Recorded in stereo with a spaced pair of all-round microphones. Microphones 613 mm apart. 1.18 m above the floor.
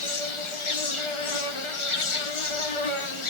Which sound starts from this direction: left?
An insect, at 0.0 s.